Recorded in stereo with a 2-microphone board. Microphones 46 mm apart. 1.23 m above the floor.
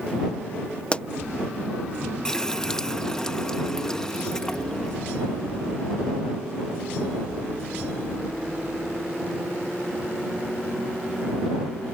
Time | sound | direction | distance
0.9 | a pop | 25° left (ahead or behind) | ?
2.2 | a running tap | 15° left (ahead or behind) | ?